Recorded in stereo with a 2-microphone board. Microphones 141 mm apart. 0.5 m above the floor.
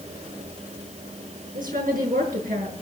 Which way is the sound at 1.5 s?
85° right.